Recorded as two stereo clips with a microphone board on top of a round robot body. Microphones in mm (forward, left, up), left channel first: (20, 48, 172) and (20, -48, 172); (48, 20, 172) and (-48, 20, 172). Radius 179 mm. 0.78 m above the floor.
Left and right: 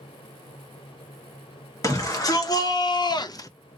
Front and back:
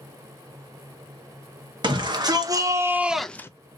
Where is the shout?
145° left, 1.7 m; by 3.5 s 50° left, 0.7 m.